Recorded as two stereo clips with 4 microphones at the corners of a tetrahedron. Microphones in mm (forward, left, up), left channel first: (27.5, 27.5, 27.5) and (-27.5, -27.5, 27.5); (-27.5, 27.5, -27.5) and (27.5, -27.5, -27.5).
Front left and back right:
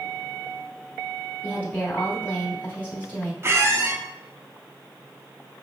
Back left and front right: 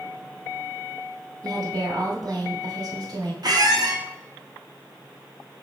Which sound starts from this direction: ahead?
A woman speaking, at 1.4 s.